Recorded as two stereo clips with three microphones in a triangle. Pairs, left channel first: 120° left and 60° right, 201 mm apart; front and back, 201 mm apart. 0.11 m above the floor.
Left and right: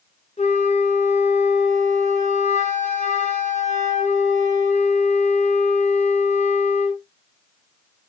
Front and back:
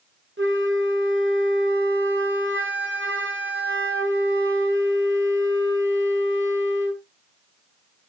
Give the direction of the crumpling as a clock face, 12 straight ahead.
I don't hear crumpling.